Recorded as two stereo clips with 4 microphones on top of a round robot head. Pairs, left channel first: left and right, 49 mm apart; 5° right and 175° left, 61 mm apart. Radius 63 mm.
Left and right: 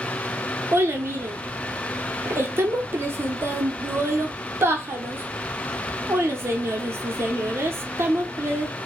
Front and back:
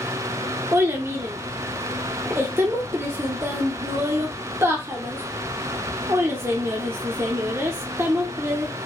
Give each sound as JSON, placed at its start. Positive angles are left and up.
{"t": 0.7, "sound": "a child speaking", "azimuth_deg": -125, "distance_m": 0.9}